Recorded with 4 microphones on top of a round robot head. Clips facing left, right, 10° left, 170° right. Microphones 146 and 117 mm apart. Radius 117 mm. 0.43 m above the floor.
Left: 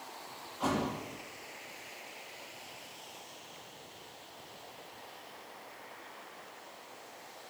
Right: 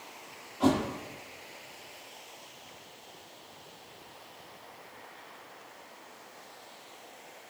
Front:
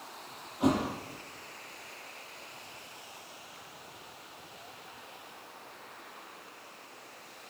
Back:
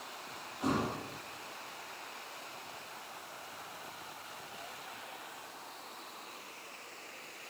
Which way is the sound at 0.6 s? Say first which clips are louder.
Right 7 dB, front 5 dB; 30° right.